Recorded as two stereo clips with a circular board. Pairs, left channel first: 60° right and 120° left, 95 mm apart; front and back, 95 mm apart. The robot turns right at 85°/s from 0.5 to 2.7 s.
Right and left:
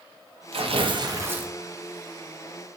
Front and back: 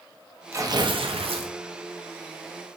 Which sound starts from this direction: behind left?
Tearing paper, at 0.5 s.